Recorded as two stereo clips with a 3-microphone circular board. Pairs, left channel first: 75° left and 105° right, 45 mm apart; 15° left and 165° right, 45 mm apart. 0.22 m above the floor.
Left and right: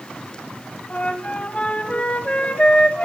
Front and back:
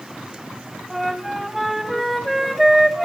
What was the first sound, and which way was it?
A flute, 105° left.